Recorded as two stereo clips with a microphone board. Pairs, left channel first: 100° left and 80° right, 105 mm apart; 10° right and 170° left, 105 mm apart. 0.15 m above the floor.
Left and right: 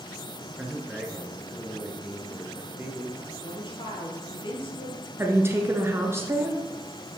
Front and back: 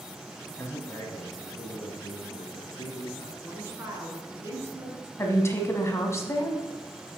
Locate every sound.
0.6 s a man speaking: straight ahead, 1.1 m; by 3.3 s 10° right, 2 m
3.4 s a woman speaking: 110° left, 2.5 m
5.2 s a woman speaking: 45° right, 1.1 m